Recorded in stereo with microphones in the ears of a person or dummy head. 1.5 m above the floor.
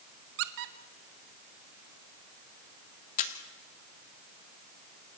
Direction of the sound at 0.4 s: 60° right (ahead or behind).